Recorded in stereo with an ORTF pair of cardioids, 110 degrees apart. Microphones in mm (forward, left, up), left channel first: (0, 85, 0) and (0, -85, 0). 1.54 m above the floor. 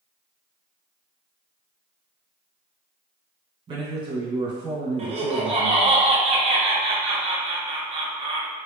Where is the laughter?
40° right, 1.2 m.